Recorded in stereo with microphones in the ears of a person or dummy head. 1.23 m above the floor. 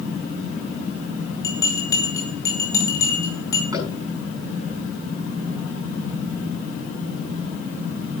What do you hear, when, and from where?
1.4 s a bell: 25° left (ahead or behind), 2.5 m
3.7 s tapping: 15° right (ahead or behind), 8 m